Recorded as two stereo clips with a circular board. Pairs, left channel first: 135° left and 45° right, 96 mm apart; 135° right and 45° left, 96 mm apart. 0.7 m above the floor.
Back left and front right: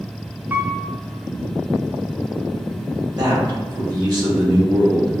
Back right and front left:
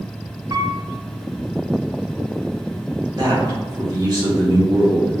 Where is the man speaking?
Straight ahead, 1.6 m.